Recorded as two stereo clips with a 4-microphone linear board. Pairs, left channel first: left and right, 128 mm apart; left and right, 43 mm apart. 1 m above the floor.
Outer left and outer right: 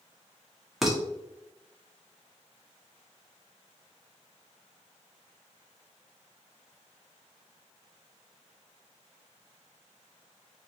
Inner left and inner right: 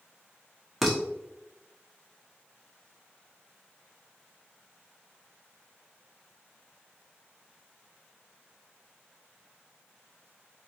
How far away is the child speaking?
No child speaking in this recording.